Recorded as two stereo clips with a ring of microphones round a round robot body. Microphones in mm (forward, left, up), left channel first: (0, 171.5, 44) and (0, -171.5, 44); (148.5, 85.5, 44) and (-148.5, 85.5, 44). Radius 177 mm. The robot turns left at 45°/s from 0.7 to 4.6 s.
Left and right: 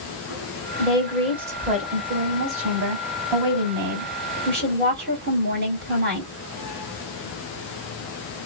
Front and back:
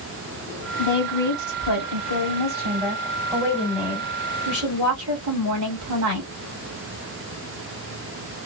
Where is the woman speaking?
20° left, 1.6 m; by 6.3 s 150° right, 1.6 m.